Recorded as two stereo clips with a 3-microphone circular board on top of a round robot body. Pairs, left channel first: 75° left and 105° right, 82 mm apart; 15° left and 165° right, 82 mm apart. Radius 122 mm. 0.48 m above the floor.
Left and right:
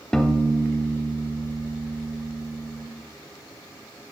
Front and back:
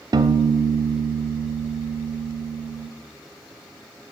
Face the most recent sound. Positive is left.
turn(degrees=160)